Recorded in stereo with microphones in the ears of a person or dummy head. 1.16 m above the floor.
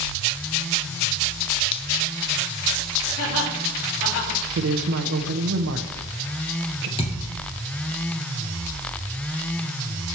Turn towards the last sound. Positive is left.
turn(degrees=30)  # may be behind; listen again after turning